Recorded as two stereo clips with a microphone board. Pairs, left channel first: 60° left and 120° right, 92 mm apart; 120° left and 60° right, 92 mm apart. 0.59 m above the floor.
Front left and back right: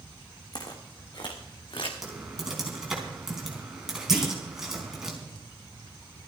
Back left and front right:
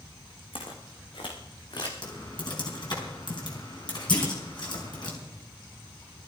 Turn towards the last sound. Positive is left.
turn(degrees=155)